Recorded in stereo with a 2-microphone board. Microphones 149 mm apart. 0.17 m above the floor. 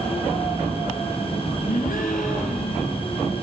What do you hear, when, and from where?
1.7 s a gasp: 65° left (ahead or behind), 4 m